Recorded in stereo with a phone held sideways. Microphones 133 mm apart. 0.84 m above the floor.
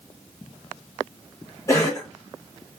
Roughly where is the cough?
Left.